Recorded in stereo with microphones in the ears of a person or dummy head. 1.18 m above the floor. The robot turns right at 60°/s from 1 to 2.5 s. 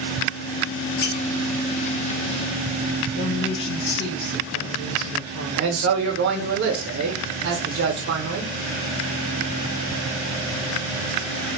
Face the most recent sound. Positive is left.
turn(degrees=-70)  # may be behind; listen again after turning